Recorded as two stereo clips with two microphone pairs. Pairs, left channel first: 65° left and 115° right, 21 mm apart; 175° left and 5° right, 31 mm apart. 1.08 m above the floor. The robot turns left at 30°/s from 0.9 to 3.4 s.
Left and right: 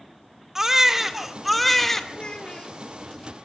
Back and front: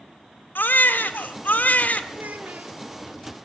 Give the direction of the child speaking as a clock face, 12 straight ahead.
11 o'clock.